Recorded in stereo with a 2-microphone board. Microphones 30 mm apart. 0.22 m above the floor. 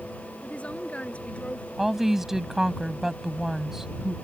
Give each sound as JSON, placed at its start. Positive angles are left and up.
{"t": 0.4, "sound": "a woman speaking", "side_deg": 45}
{"t": 1.8, "sound": "a woman speaking", "side_deg": -10}